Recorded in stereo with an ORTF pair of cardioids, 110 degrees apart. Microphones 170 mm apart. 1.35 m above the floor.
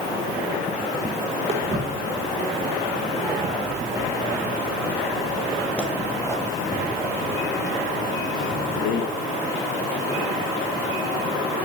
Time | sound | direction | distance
1.5 | footsteps | 35° right | 5.5 m